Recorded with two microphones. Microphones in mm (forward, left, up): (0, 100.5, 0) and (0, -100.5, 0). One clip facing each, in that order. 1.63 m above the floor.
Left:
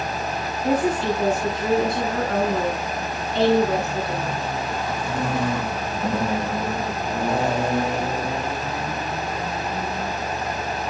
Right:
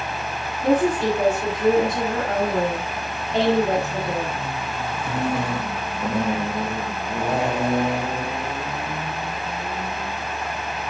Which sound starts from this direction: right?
A woman speaking, at 0.6 s.